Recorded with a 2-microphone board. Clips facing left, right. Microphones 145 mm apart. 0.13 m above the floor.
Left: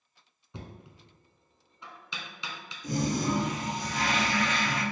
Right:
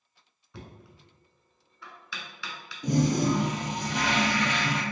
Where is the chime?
I don't hear a chime.